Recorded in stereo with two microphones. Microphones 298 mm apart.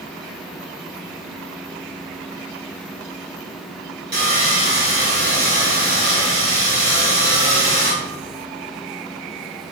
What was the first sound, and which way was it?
Sawing, 35° right (ahead or behind).